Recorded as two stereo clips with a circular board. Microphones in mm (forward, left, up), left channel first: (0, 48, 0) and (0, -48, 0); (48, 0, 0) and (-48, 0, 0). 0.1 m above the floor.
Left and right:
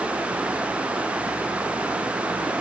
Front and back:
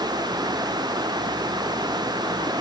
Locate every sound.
Only background noise.